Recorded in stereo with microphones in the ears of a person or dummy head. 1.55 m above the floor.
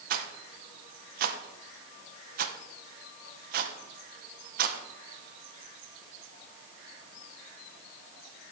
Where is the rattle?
60° right (ahead or behind), 1.0 m.